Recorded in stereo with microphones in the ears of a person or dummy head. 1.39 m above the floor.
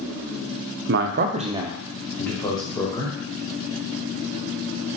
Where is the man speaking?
65° right (ahead or behind), 0.5 m; by 3.1 s 25° left (ahead or behind), 1.0 m.